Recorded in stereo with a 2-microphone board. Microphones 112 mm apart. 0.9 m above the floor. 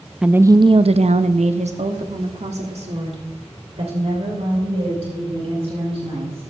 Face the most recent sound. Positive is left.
turn(degrees=-60)  # may be behind; listen again after turning